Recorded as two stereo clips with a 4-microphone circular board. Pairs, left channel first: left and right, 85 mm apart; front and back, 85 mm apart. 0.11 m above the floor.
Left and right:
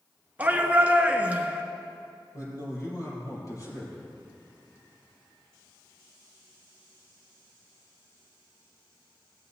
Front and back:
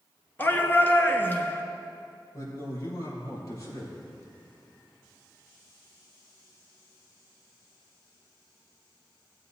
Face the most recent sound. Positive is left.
turn(degrees=45)